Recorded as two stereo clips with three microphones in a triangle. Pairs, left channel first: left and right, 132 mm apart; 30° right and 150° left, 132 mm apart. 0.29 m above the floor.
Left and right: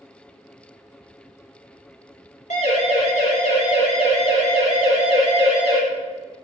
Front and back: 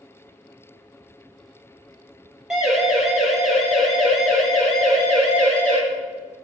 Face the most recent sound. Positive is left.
turn(degrees=50)